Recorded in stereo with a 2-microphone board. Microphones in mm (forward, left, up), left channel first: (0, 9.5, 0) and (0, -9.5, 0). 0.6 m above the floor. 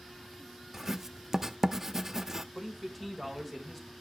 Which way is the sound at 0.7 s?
25° right (ahead or behind).